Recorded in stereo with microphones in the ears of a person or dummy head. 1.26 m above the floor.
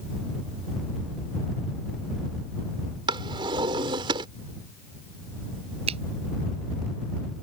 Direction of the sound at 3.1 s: 30° right (ahead or behind).